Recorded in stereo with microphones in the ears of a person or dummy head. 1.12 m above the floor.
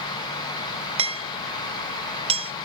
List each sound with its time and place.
1.0 s hammering: 35° right (ahead or behind)